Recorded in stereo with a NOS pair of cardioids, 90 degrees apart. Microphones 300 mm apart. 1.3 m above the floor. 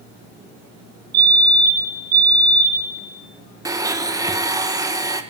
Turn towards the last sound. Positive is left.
turn(degrees=-10)